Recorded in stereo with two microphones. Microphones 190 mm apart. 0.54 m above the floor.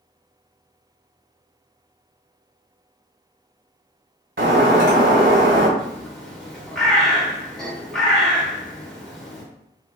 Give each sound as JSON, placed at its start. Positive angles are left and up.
{"t": 4.4, "sound": "breaking glass", "side_deg": -75, "distance_m": 1.4}
{"t": 5.8, "sound": "a bird", "side_deg": 5, "distance_m": 0.8}